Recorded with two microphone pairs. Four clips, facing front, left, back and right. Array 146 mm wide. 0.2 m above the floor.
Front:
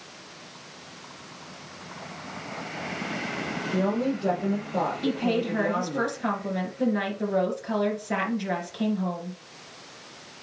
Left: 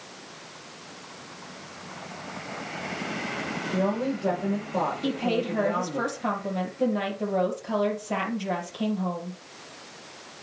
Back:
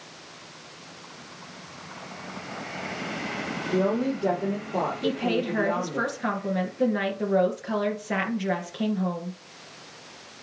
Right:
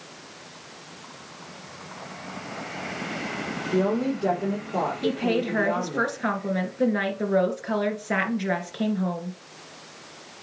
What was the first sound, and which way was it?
A woman speaking, 115° right.